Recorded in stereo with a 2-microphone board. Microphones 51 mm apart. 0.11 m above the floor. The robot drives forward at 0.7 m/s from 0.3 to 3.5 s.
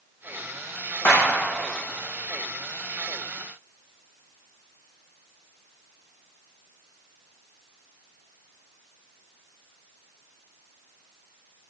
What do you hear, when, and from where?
1.1 s a clap: 55° left (ahead or behind), 4.5 m